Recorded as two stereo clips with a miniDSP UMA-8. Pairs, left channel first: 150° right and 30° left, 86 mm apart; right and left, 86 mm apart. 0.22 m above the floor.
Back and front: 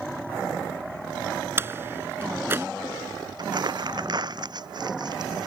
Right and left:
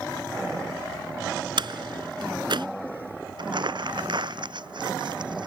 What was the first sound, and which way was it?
A door slam, 90° left.